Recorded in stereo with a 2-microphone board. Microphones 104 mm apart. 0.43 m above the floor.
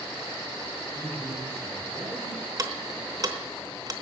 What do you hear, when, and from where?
0.9 s a man speaking: 25° right (ahead or behind), 5 m
2.6 s ticking: 35° right (ahead or behind), 0.9 m